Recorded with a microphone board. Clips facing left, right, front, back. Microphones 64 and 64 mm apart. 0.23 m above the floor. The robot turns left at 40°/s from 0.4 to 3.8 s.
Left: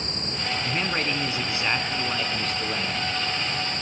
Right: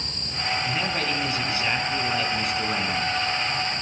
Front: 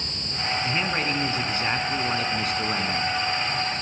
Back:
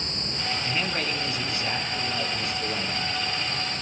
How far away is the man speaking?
About 3 m.